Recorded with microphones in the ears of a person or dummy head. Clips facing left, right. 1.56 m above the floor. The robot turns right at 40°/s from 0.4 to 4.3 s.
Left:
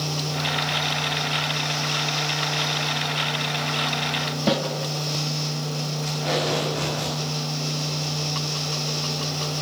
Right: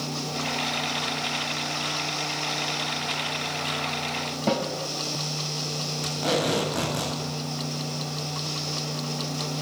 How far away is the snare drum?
About 6.5 m.